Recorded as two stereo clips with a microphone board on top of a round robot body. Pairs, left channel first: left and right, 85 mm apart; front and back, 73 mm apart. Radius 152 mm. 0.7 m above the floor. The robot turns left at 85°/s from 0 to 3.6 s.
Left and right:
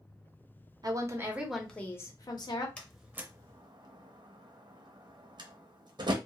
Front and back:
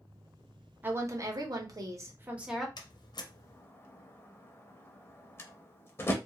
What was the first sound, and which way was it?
A woman speaking, 120° right.